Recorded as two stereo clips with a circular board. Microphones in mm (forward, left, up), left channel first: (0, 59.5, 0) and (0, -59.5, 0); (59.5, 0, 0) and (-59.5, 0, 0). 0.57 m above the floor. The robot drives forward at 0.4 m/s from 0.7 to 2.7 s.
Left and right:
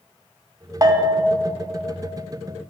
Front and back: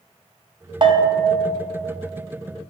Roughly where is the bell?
Behind right.